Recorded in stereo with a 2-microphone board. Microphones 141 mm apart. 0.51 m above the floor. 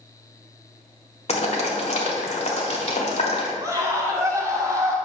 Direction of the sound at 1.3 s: 50° left (ahead or behind).